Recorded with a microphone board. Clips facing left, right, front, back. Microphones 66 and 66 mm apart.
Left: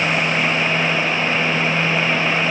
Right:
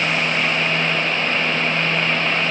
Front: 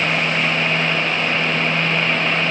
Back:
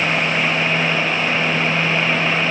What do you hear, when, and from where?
Only background noise.